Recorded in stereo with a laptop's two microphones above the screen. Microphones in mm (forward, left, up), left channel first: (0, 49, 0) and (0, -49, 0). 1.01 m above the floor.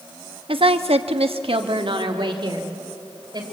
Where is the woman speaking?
65° right (ahead or behind), 1.1 m; by 3.4 s 45° right (ahead or behind), 3.5 m.